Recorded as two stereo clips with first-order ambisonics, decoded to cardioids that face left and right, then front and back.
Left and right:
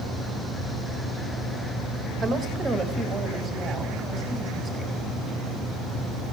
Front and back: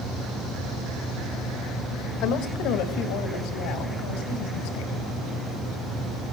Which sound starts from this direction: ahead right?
A woman speaking, at 2.2 s.